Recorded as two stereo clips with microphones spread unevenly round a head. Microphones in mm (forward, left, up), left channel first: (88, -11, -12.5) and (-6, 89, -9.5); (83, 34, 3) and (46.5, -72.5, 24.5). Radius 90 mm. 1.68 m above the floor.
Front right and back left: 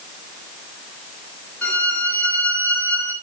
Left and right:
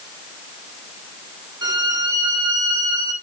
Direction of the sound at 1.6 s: 120° right.